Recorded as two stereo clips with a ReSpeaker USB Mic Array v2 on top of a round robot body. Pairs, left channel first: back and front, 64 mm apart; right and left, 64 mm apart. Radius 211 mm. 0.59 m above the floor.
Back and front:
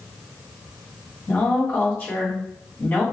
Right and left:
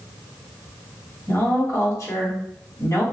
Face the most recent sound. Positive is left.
turn(degrees=-115)